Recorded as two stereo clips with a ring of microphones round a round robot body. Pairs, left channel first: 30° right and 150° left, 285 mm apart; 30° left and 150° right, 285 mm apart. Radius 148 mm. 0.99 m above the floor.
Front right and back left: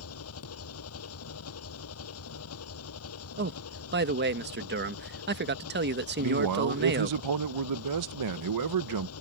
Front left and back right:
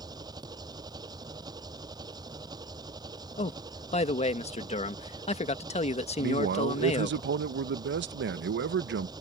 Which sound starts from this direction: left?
A man speaking, at 3.4 s.